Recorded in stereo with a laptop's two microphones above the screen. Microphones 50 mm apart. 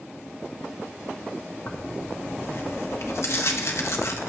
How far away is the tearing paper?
About 0.7 m.